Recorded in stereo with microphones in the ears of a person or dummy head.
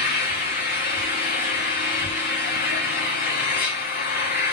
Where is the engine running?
25° left (ahead or behind), 1.2 m.